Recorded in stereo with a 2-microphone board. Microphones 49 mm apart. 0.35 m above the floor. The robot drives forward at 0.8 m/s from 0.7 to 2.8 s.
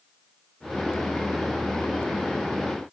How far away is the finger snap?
No finger snap in this recording.